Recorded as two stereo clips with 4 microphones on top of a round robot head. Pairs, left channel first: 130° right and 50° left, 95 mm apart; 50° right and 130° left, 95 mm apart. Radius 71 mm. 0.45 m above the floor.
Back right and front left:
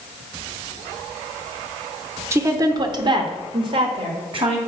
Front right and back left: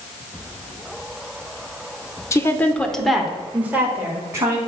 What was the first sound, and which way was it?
A woman speaking, straight ahead.